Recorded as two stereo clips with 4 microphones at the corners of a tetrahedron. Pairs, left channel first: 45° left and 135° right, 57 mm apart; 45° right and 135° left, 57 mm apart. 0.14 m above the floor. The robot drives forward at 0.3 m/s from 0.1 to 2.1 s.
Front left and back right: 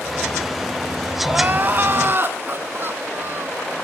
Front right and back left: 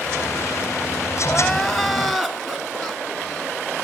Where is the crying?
125° right, 0.9 m; by 3.6 s 140° right, 1.0 m.